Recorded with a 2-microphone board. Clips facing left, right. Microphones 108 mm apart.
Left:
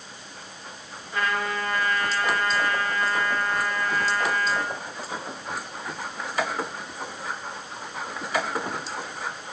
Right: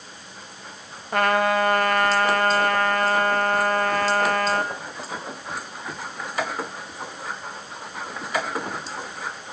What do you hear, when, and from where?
1.1 s a trumpet: 65° right (ahead or behind), 2.0 m